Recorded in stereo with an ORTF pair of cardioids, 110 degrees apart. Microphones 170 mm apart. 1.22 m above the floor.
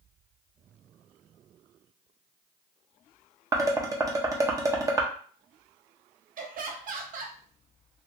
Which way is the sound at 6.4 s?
55° right.